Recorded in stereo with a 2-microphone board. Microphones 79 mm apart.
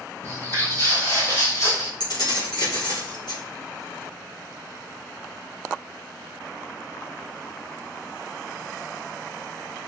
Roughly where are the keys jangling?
Left.